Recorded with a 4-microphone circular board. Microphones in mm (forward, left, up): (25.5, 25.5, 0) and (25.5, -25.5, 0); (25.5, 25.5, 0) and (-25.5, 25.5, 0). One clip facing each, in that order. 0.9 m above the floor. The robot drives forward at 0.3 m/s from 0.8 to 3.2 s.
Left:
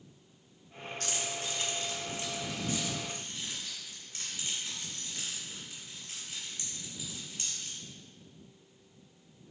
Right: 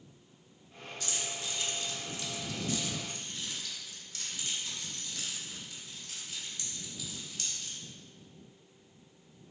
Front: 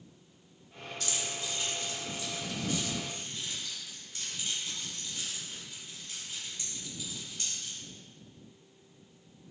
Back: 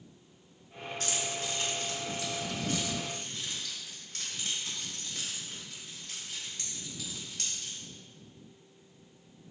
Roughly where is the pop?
I don't hear a pop.